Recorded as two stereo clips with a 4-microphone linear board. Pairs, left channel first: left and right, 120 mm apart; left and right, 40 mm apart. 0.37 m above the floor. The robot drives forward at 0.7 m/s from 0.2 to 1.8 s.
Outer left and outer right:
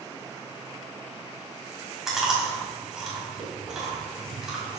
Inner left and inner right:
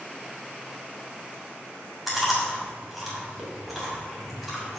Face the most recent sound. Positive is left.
turn(degrees=-5)  # may be behind; listen again after turning